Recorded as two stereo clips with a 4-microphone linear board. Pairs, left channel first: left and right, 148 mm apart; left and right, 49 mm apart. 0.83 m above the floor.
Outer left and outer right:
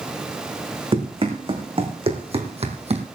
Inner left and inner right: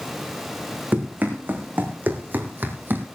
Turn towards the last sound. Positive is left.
turn(degrees=-45)  # may be behind; listen again after turning